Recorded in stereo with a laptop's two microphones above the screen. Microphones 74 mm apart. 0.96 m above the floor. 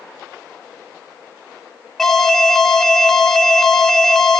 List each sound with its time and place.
2.0 s an alarm: 5° left (ahead or behind), 2 m